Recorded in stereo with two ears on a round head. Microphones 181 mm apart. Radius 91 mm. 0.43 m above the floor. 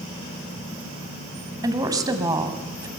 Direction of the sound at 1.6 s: 20° right (ahead or behind).